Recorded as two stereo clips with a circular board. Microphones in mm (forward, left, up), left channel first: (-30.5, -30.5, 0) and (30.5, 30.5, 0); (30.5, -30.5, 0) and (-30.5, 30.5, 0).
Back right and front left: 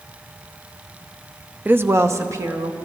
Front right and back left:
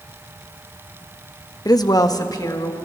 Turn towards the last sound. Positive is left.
turn(degrees=-5)